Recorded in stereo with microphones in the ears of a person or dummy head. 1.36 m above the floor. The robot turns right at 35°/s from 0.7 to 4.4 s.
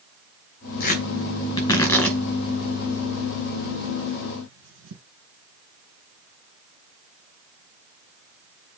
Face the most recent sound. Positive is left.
turn(degrees=-70)  # may be behind; listen again after turning